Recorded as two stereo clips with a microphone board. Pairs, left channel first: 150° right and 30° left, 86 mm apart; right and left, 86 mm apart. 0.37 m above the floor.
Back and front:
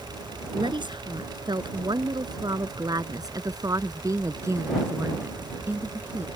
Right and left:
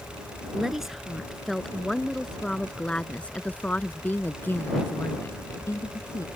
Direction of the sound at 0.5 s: 5° left.